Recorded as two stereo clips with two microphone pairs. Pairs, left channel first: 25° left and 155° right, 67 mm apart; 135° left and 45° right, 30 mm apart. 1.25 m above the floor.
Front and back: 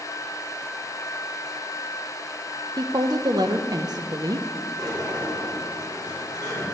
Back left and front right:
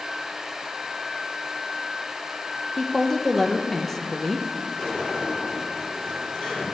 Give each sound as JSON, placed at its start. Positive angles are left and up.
{"t": 2.8, "sound": "a woman speaking", "azimuth_deg": -145, "distance_m": 0.7}
{"t": 4.8, "sound": "a sliding door", "azimuth_deg": -160, "distance_m": 3.5}